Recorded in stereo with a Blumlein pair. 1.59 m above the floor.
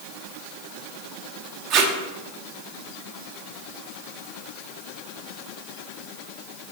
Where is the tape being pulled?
35° right, 0.5 m.